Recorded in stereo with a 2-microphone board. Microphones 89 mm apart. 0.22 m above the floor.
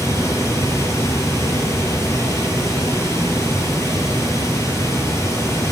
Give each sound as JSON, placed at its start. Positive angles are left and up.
{"t": 0.0, "sound": "running water", "side_deg": 35, "distance_m": 1.4}